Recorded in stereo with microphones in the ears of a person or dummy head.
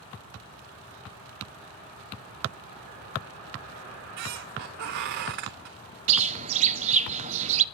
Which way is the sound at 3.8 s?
60° right (ahead or behind).